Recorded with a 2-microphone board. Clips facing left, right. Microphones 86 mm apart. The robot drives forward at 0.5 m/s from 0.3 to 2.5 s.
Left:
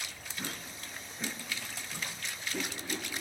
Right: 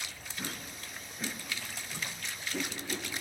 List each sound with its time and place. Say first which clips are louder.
0.4 s a whoosh: even; centre (ahead or behind), 0.9 m